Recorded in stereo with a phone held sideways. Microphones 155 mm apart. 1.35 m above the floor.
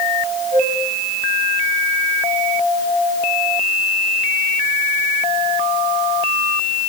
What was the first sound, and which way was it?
A flute, 60° right (ahead or behind).